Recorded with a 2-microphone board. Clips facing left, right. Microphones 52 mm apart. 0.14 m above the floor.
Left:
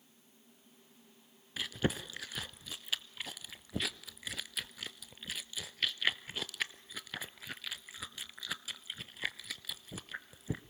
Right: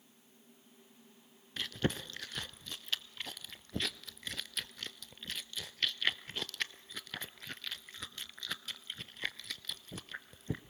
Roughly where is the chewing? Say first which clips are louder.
Left 1 dB; centre.